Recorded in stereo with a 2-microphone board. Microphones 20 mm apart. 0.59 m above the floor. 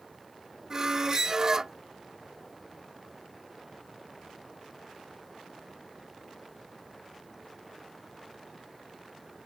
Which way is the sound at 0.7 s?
25° right (ahead or behind).